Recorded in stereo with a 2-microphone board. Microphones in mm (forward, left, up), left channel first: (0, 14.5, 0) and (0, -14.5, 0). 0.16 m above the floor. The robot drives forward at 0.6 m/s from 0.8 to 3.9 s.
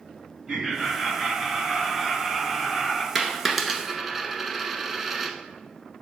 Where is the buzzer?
I don't hear a buzzer.